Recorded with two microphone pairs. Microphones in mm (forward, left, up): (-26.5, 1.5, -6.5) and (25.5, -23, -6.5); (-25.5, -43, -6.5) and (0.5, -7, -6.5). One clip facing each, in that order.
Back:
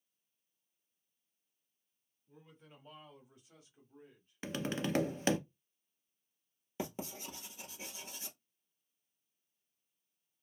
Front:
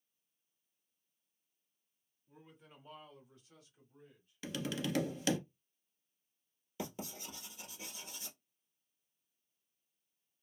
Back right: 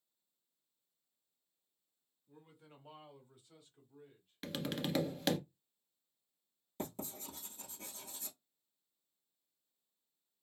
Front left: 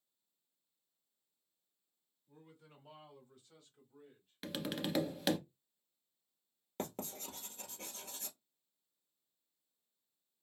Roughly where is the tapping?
Behind left.